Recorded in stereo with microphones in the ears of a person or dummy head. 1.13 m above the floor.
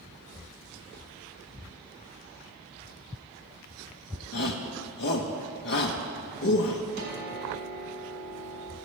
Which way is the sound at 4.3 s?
50° left (ahead or behind).